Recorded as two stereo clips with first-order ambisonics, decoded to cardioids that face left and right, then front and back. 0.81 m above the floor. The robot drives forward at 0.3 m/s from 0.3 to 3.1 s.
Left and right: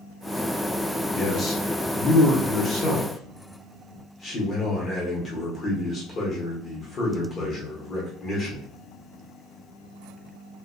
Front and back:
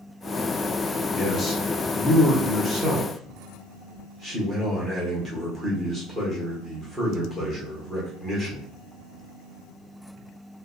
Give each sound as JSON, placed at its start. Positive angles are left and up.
{"t": 1.1, "sound": "a man speaking", "azimuth_deg": 50, "distance_m": 1.1}